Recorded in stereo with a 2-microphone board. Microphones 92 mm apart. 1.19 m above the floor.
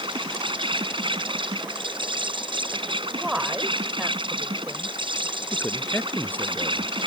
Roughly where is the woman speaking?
Centre.